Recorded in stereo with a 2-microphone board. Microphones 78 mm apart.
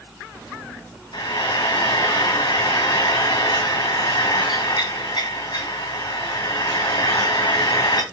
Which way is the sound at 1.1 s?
65° left (ahead or behind).